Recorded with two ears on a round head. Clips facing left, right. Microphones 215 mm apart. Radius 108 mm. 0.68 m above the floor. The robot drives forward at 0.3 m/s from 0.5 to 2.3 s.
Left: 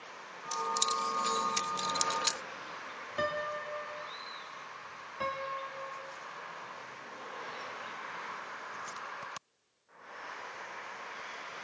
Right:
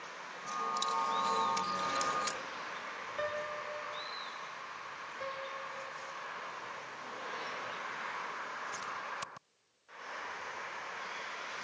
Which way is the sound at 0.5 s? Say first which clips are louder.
Left 2 dB; 70° left (ahead or behind).